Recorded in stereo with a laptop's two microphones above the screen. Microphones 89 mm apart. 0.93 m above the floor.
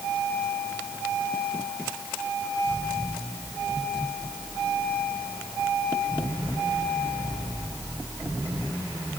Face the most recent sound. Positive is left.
No sound to turn to.